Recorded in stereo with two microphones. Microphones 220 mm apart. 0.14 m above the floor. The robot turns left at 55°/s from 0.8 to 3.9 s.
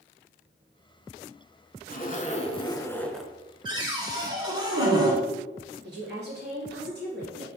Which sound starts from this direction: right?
A woman speaking, at 5.8 s.